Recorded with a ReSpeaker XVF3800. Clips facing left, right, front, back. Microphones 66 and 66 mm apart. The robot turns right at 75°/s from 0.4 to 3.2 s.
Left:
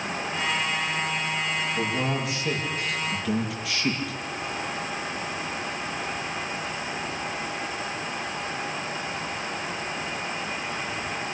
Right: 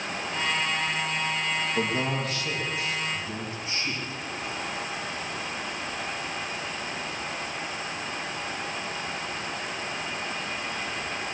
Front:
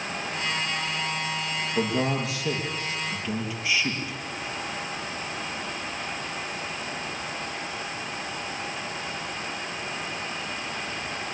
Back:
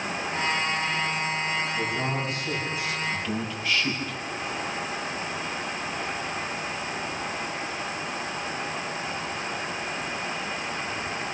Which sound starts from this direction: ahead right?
A man speaking, at 1.8 s.